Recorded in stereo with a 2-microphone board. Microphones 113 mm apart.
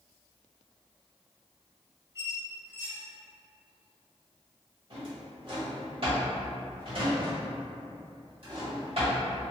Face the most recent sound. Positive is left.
turn(degrees=-55)  # may be behind; listen again after turning